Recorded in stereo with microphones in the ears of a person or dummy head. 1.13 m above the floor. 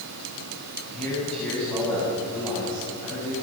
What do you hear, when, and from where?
0.9 s a man speaking: centre (ahead or behind), 9.5 m